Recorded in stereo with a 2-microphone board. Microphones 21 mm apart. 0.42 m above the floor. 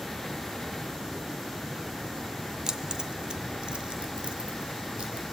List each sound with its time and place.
2.7 s keys jangling: 40° right (ahead or behind), 0.8 m; by 5.3 s 65° right (ahead or behind), 2.5 m